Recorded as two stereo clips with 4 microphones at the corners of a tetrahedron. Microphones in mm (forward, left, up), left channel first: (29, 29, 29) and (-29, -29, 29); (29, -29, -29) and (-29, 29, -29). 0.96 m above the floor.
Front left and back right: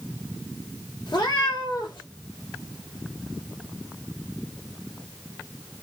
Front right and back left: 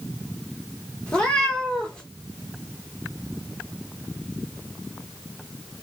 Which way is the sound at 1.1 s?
30° left.